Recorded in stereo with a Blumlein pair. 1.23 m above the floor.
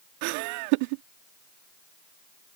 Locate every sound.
0.2 s laughter: 45° right